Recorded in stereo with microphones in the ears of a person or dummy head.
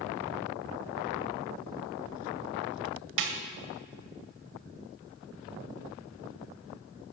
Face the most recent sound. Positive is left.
turn(degrees=-60)  # may be behind; listen again after turning